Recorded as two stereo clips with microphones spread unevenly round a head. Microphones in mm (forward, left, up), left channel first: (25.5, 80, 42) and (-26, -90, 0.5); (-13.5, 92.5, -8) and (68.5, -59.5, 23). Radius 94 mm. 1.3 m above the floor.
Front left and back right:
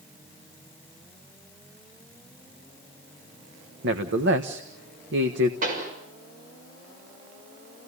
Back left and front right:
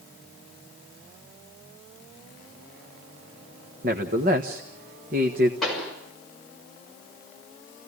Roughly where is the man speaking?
Right.